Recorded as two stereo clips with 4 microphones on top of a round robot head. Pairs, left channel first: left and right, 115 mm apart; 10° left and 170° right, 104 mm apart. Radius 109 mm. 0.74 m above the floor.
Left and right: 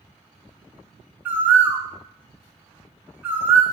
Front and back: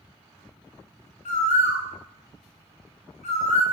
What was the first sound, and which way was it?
A bird, 15° right.